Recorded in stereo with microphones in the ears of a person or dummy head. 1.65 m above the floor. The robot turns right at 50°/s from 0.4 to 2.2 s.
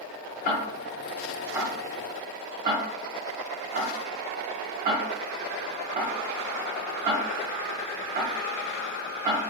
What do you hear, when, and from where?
0.5 s ticking: 45° left (ahead or behind), 0.6 m; by 9.4 s 40° right (ahead or behind), 0.6 m